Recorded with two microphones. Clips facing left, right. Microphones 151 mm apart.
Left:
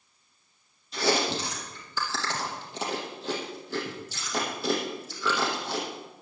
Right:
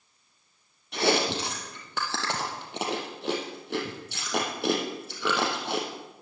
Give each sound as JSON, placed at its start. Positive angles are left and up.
{"t": 0.9, "sound": "chewing", "side_deg": -65, "distance_m": 3.0}